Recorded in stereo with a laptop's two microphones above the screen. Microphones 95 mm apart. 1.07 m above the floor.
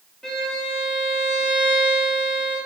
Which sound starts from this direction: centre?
A violin, at 0.2 s.